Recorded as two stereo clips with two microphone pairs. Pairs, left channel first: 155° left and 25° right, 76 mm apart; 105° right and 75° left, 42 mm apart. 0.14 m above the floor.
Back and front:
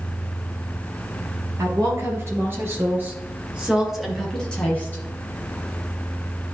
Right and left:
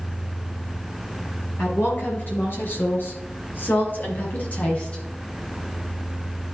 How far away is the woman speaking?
About 3.5 m.